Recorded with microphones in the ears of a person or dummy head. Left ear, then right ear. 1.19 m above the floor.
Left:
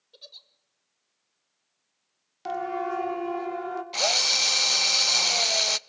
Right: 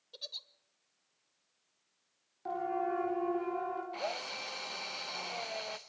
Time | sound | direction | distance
0.1 | a giggle | 20° right (ahead or behind) | 1.2 m
2.5 | a siren | 70° left (ahead or behind) | 3 m
3.9 | a drill | 80° left | 0.9 m